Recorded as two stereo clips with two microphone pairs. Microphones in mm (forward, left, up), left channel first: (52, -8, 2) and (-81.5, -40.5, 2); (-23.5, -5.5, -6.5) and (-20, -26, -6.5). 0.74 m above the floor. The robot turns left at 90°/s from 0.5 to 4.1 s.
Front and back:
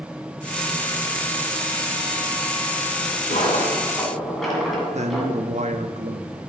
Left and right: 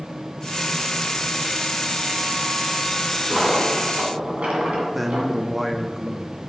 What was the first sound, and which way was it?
A dropped coin, 5° left.